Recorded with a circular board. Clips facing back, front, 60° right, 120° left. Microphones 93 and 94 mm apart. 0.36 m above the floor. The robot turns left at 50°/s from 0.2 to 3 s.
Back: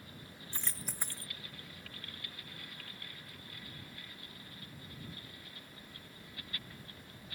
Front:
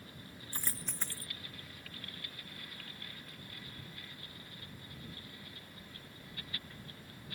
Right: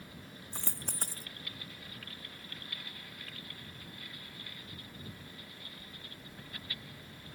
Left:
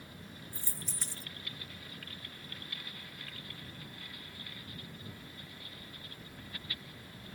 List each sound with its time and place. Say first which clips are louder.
0.5 s a dropped coin: even, right 7 dB; 80° right; by 1.3 s 115° right